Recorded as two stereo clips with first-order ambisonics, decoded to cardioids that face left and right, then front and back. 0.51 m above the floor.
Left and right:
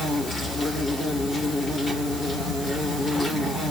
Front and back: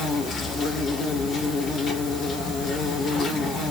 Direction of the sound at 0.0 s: 20° left.